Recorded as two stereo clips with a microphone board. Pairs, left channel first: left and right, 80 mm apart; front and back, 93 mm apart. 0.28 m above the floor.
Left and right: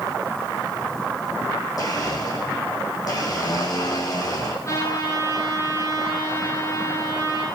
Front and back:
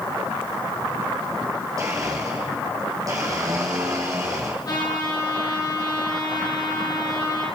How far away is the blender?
About 5 m.